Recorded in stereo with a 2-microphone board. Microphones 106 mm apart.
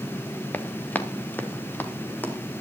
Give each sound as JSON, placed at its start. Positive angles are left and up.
{"t": 0.5, "sound": "running footsteps", "side_deg": 15, "distance_m": 1.4}